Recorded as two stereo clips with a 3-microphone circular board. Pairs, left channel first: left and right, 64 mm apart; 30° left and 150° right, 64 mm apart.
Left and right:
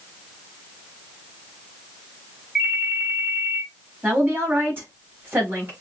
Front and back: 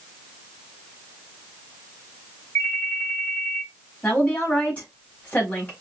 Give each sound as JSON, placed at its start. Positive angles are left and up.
{"t": 2.5, "sound": "a ringtone", "azimuth_deg": -15, "distance_m": 3.0}
{"t": 4.0, "sound": "a woman speaking", "azimuth_deg": -35, "distance_m": 4.0}